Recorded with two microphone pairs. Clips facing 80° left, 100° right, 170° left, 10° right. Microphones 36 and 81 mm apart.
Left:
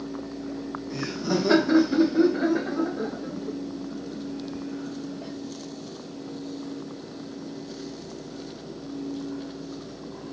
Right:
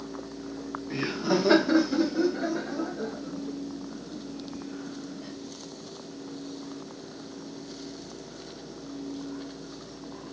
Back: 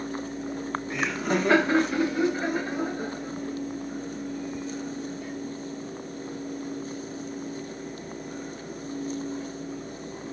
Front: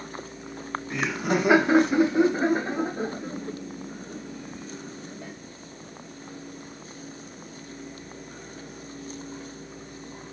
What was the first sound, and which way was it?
Laughter, 95° right.